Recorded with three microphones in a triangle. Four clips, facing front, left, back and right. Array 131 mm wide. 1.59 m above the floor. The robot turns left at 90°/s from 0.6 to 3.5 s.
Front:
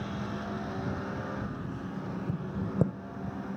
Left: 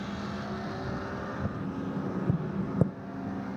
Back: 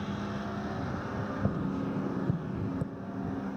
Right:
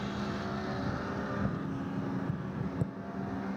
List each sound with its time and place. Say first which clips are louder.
1.4 s tapping: left 1 dB, back 6 dB; straight behind; by 2.9 s 45° left